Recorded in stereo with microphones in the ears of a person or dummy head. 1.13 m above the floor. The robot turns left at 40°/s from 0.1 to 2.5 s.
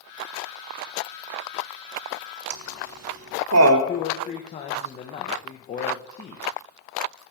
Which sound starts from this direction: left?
A man speaking, at 3.9 s.